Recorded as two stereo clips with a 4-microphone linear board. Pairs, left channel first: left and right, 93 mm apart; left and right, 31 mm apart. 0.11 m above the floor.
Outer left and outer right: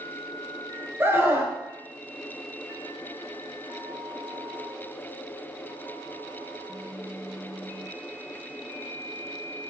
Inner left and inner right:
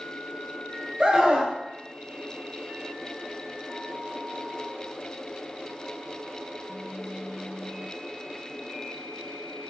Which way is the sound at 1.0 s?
25° right (ahead or behind).